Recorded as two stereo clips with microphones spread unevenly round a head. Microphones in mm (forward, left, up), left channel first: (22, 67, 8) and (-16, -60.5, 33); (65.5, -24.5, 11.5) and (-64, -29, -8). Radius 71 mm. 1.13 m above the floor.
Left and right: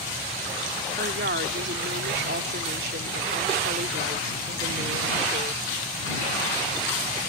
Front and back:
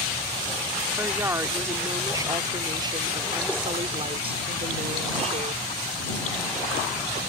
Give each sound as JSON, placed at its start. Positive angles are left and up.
{"t": 1.0, "sound": "a woman speaking", "azimuth_deg": -105}